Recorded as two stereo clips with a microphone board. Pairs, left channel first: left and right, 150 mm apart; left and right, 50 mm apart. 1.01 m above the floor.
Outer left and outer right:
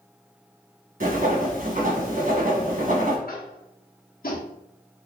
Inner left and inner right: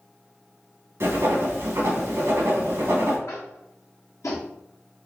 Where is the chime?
No chime in this recording.